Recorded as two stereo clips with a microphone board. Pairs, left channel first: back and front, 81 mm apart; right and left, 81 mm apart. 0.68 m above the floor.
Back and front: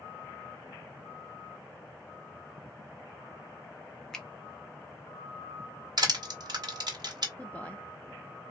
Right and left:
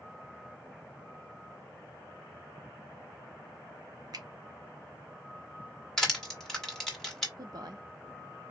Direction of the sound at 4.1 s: 100° left.